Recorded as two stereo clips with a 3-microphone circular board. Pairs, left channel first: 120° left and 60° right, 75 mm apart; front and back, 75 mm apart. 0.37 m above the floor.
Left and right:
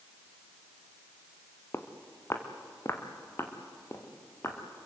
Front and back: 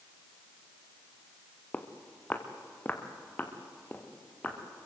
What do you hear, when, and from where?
1.7 s footsteps: 65° left, 2.5 m